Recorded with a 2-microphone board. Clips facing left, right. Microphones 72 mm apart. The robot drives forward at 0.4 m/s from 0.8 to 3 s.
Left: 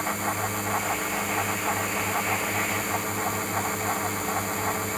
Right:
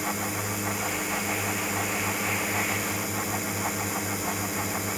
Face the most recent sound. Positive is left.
turn(degrees=-5)  # may be behind; listen again after turning